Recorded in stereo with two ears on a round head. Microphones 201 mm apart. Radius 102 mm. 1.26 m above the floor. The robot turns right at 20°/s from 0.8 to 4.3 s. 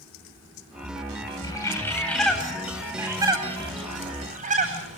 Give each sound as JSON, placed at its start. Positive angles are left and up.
{"t": 1.4, "sound": "a bird", "side_deg": 20, "distance_m": 9.5}